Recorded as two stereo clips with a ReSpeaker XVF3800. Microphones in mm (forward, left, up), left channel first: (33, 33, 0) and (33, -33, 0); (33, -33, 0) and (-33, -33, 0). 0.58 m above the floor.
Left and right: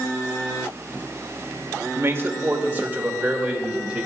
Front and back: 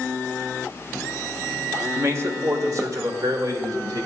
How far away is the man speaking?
About 1.7 m.